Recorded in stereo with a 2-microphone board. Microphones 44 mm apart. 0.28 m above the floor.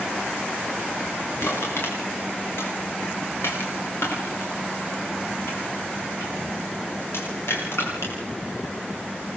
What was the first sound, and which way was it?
Crushing, 70° left (ahead or behind).